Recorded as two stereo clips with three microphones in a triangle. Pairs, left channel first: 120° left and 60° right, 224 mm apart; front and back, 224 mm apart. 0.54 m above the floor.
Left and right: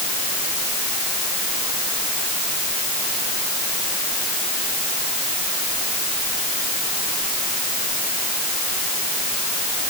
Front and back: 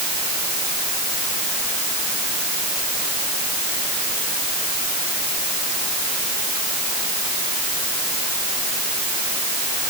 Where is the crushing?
No crushing in this recording.